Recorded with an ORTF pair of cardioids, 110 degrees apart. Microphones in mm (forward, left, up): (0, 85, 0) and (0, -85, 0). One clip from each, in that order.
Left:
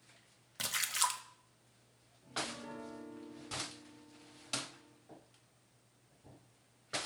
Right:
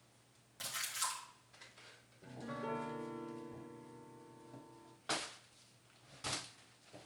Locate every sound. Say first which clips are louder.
0.6 s a splash: left 6 dB; 60° left, 0.8 m
2.2 s a piano: left 3 dB; 50° right, 1.1 m